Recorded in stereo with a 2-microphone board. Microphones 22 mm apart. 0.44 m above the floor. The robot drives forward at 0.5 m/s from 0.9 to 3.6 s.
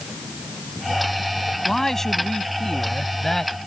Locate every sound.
1.6 s a man speaking: 15° left (ahead or behind); by 3.5 s 20° left (ahead or behind)